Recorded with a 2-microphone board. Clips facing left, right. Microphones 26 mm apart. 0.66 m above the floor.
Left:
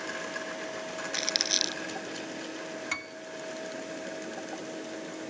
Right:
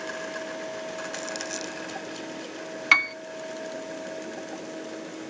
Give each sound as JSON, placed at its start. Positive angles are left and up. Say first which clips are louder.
{"t": 1.1, "sound": "crumpling", "louder": "left 4 dB", "side_deg": 70}
{"t": 2.9, "sound": "a piano", "louder": "right 18 dB", "side_deg": -65}